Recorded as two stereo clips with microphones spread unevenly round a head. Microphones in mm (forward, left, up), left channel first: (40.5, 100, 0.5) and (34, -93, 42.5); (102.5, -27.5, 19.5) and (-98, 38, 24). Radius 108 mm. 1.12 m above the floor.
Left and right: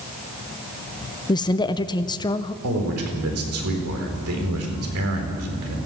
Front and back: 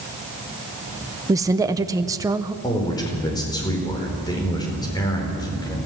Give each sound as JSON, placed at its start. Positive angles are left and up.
{"t": 1.3, "sound": "a woman speaking", "azimuth_deg": 100, "distance_m": 0.7}
{"t": 2.6, "sound": "a man speaking", "azimuth_deg": -90, "distance_m": 4.0}